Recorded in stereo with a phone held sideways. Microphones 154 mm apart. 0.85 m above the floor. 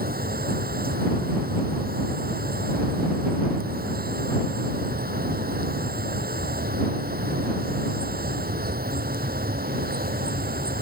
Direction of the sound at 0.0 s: 80° right.